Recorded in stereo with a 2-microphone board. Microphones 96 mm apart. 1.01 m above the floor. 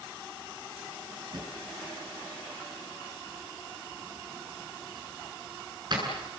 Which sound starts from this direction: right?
A drawer, at 1.3 s.